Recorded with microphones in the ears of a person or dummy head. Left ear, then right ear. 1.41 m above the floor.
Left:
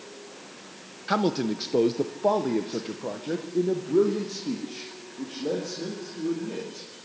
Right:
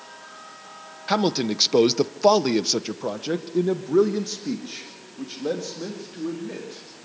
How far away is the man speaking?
About 1.0 m.